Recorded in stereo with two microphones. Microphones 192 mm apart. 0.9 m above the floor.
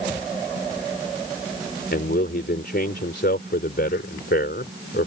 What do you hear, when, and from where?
1.9 s a man speaking: 60° left (ahead or behind)